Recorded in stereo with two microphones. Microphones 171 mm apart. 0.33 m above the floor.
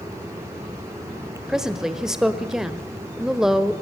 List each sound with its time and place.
1.5 s a woman speaking: 5° right (ahead or behind), 1.1 m